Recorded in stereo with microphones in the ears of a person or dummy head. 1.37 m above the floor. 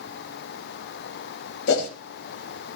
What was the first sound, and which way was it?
A whoosh, 65° left (ahead or behind).